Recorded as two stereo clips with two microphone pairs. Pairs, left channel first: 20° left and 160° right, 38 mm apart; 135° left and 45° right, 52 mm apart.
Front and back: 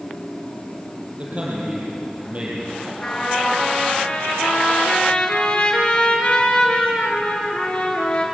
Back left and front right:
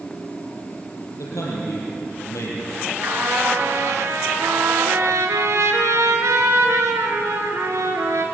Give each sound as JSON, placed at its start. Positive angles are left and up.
{"t": 1.2, "sound": "a man speaking", "azimuth_deg": 145, "distance_m": 7.5}
{"t": 3.0, "sound": "a trumpet", "azimuth_deg": -40, "distance_m": 4.5}